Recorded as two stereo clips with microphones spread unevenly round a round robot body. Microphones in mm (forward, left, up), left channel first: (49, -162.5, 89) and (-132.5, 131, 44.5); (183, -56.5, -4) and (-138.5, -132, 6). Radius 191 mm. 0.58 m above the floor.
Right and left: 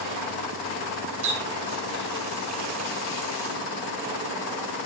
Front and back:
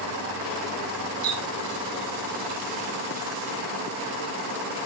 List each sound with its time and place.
1.2 s a running tap: 125° left, 1.6 m